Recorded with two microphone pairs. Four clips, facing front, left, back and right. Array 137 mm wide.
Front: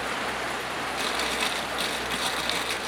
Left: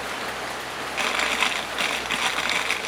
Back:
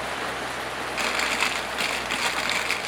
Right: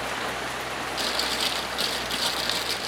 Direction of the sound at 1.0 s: 110° left.